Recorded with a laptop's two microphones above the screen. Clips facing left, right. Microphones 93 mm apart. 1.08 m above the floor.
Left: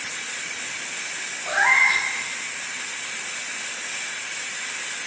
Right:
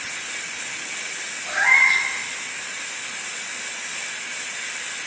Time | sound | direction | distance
1.5 | a cat meowing | 30° left (ahead or behind) | 1.6 m